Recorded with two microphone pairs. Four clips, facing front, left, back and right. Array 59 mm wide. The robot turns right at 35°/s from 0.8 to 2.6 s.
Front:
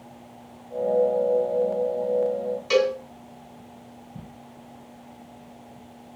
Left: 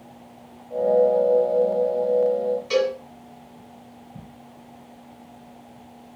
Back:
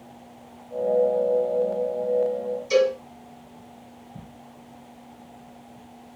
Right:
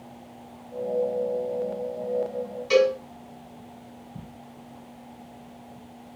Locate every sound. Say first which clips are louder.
2.7 s a cowbell: right 4 dB, back 1 dB; 15° right, 2.5 m